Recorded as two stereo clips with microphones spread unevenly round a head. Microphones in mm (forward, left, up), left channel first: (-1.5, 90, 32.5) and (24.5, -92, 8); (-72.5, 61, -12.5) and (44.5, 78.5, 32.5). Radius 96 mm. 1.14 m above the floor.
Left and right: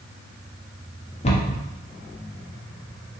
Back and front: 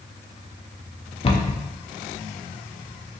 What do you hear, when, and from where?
1.2 s a cupboard door: 135° left, 0.5 m